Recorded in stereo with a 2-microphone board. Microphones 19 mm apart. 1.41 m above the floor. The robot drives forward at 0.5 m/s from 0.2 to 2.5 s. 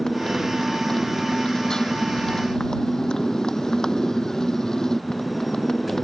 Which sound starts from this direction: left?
A motorcycle, at 0.0 s.